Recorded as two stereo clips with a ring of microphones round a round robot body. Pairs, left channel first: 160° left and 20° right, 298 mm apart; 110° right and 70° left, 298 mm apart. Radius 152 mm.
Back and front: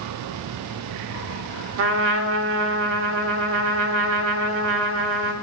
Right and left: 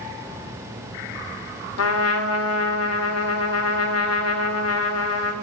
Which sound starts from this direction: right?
A trumpet, at 1.8 s.